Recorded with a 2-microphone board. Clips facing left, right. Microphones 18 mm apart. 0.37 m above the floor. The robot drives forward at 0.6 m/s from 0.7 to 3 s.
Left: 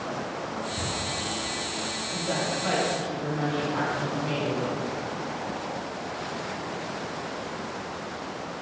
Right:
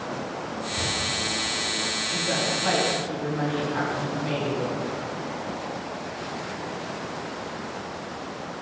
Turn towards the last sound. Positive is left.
turn(degrees=5)  # may be behind; listen again after turning